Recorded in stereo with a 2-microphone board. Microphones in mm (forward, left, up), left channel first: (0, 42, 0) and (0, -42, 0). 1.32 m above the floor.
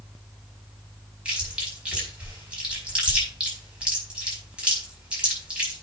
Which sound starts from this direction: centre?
Chewing, at 1.2 s.